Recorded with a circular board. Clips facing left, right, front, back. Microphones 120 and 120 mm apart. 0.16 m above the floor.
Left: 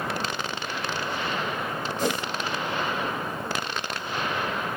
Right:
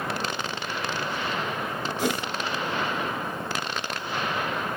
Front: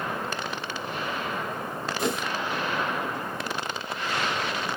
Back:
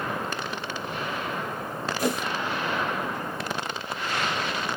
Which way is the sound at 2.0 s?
25° right.